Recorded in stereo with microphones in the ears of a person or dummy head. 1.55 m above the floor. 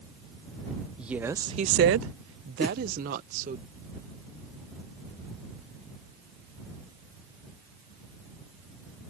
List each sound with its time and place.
1.0 s a woman speaking: 5° right (ahead or behind); by 3.6 s 40° right (ahead or behind)
2.6 s a whoosh: centre (ahead or behind)